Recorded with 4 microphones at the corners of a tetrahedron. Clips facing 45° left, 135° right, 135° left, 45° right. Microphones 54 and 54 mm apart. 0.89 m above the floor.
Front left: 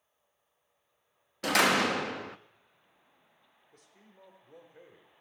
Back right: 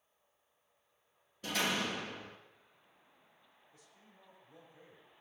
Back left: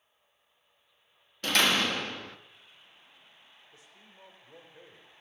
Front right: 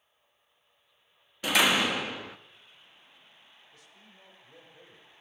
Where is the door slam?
35° left, 0.6 m.